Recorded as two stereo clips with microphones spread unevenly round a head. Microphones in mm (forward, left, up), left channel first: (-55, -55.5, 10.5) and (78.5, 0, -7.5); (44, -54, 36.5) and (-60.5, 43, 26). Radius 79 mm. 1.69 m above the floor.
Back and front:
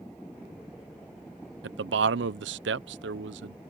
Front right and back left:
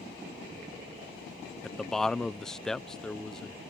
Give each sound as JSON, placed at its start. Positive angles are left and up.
{"t": 1.6, "sound": "a man speaking", "azimuth_deg": 45}